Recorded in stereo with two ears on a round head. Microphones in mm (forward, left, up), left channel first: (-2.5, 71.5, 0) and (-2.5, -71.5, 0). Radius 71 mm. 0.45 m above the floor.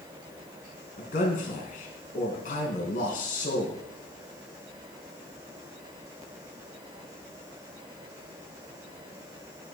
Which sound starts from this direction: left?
A man speaking, at 1.0 s.